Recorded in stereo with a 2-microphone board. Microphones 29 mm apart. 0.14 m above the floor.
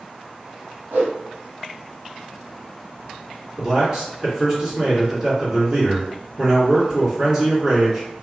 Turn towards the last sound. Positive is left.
turn(degrees=-20)  # may be behind; listen again after turning